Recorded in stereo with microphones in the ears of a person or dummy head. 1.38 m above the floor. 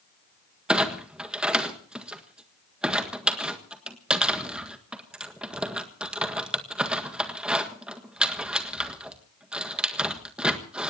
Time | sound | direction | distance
0.7 | a clunk | centre (ahead or behind) | 1.5 m